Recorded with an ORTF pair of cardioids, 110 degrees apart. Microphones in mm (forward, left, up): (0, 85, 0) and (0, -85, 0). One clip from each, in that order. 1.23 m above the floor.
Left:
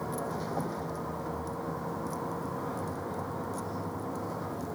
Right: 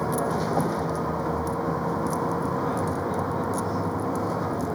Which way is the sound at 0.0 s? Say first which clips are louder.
Right 9 dB; 50° right.